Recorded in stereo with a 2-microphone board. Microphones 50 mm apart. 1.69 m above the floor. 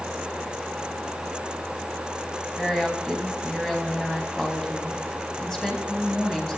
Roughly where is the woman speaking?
Centre.